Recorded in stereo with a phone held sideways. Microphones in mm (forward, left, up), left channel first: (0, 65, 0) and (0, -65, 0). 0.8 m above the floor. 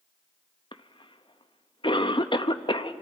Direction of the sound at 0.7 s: 40° left (ahead or behind).